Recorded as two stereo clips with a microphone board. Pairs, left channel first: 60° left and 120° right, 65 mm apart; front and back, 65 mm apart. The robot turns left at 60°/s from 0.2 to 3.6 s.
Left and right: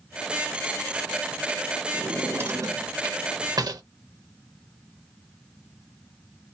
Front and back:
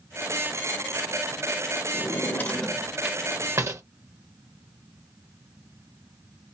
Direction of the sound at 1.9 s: 40° right.